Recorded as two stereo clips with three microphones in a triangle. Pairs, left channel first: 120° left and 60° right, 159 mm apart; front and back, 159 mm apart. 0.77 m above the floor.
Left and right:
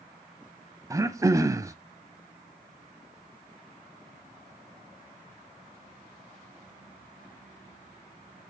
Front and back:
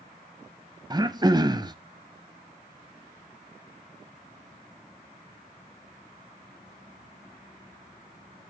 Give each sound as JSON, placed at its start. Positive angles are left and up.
{"t": 0.9, "sound": "throat clearing", "azimuth_deg": -125, "distance_m": 0.8}